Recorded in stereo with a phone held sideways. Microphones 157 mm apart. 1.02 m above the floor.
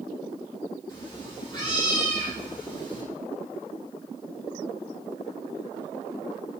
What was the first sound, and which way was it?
A cat meowing, 30° left (ahead or behind).